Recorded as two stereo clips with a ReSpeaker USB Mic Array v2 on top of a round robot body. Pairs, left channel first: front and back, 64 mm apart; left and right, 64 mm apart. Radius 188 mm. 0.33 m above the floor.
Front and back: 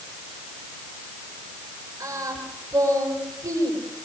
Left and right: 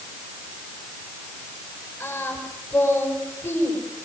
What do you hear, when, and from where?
2.0 s singing: 145° left, 8.5 m